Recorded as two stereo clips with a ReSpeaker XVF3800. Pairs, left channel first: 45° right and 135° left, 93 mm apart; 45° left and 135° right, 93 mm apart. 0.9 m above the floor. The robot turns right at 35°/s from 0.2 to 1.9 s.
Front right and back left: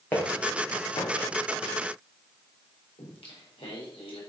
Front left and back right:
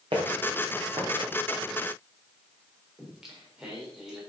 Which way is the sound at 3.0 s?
50° right.